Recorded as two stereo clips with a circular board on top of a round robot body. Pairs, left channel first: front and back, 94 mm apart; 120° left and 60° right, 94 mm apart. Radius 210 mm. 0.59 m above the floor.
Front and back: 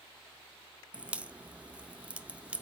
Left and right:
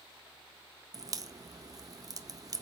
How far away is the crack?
About 0.5 m.